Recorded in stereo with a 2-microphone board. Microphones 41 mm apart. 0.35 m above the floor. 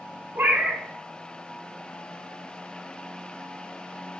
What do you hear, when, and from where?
0.3 s a cat meowing: 65° right (ahead or behind), 0.5 m